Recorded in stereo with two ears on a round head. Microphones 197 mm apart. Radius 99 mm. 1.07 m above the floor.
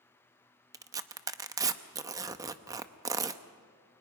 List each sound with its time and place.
0.7 s tearing paper: 15° right (ahead or behind), 0.6 m